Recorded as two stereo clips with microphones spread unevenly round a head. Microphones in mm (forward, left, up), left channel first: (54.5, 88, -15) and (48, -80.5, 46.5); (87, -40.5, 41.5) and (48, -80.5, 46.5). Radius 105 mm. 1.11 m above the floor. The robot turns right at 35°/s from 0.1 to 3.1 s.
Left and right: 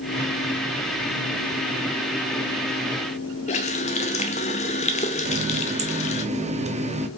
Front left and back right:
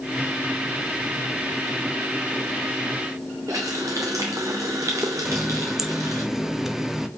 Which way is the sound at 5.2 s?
50° right.